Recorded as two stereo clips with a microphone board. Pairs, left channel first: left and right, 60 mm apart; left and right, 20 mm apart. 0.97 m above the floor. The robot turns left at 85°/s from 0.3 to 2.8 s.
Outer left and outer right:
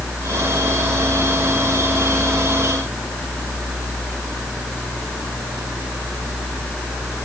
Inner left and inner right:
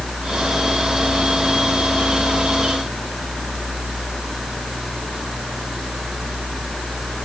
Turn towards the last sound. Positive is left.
No sound to turn to.